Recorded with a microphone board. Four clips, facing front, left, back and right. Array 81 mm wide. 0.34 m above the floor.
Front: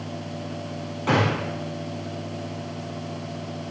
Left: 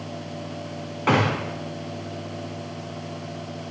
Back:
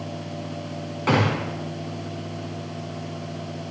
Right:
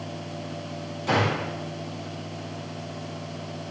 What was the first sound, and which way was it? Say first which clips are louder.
A gunshot: left 3 dB, back 1 dB; 105° left.